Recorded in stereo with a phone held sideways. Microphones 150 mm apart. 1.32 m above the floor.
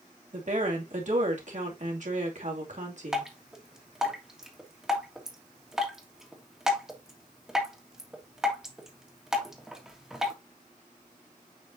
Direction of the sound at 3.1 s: 5° right (ahead or behind).